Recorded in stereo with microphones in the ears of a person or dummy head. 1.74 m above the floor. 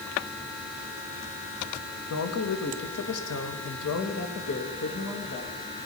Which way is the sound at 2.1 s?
65° left (ahead or behind).